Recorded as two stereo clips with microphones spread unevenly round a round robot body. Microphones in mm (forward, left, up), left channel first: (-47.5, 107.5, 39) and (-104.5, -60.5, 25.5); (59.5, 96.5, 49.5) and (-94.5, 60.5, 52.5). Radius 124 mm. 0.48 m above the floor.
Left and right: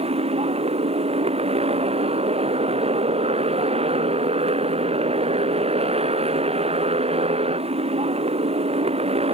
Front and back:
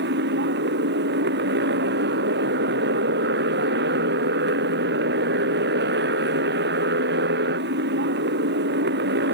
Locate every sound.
0.0 s a motorcycle: 165° right